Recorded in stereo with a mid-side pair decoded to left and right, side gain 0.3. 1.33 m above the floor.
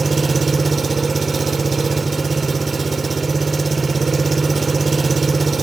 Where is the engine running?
45° right, 0.8 m.